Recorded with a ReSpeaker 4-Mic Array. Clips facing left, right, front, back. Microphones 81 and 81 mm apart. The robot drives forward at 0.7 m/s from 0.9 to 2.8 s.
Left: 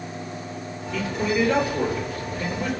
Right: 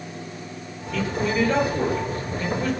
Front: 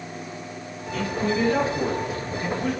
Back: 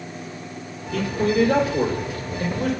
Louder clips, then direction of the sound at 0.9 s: Even, back 4 dB; 175° left.